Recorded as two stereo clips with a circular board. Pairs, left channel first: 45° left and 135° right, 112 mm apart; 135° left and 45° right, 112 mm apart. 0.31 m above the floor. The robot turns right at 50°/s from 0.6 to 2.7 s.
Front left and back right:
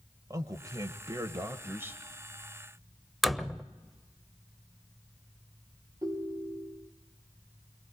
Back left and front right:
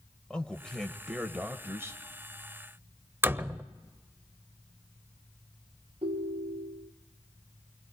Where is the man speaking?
150° right, 1.1 m; by 2.0 s 80° right, 1.1 m.